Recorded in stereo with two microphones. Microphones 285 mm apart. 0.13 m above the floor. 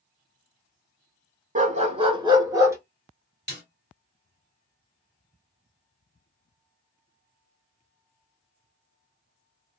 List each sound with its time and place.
1.6 s a dog barking: 25° right (ahead or behind), 0.6 m; by 2.8 s 10° right (ahead or behind), 1.0 m
3.5 s a snare drum: 35° right (ahead or behind), 2 m